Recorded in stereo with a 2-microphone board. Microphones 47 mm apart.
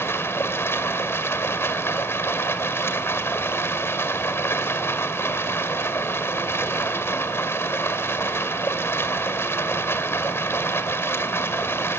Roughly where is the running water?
Left.